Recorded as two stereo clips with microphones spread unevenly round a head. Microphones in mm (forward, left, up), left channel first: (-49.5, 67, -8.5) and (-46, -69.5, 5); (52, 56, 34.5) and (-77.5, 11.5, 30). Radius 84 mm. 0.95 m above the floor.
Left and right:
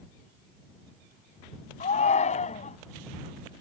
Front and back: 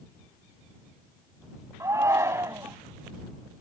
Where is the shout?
130° left.